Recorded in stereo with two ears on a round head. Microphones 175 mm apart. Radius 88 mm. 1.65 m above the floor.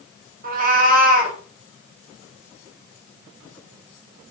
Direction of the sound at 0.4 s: 45° right (ahead or behind).